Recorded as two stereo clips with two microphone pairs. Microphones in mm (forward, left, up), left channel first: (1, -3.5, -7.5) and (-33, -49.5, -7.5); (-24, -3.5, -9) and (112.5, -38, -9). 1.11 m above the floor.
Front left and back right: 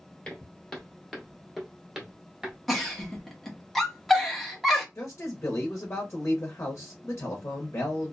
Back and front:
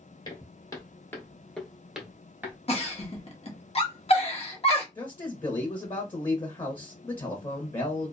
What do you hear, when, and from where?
0.2 s footsteps: 130° left, 1.3 m; by 2.6 s 70° right, 1.2 m
2.7 s a giggle: 145° left, 0.8 m
5.0 s a man speaking: 105° left, 0.7 m